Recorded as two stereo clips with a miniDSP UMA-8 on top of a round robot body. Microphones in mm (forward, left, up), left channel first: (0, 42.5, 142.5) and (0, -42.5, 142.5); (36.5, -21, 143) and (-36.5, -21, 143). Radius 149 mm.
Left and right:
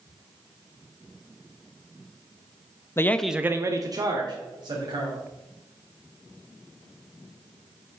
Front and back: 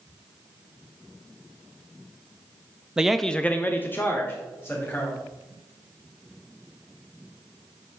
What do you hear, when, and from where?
3.0 s a man speaking: 110° left, 0.6 m; by 5.2 s 60° right, 2.0 m